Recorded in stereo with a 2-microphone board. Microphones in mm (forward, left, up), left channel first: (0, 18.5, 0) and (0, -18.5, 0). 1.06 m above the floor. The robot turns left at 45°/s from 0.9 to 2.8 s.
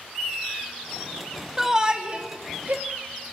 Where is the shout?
10° right (ahead or behind), 2.5 m; by 2.8 s 60° right (ahead or behind), 2.5 m.